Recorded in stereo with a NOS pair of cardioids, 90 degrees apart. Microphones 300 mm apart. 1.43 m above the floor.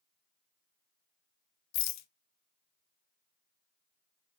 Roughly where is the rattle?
Ahead left.